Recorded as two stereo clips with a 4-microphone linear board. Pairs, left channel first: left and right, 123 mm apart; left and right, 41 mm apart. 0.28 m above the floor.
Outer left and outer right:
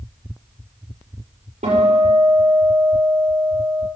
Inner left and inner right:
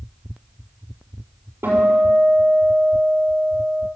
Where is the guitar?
80° right, 6 m.